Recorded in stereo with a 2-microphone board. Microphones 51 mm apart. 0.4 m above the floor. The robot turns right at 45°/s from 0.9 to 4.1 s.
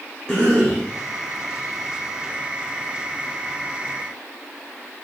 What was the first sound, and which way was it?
A cough, 15° left (ahead or behind).